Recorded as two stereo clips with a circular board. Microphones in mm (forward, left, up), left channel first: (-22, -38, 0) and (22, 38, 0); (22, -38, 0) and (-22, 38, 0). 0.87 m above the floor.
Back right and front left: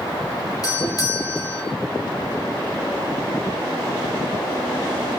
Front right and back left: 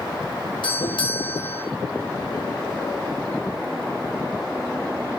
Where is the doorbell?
75° right, 5 m.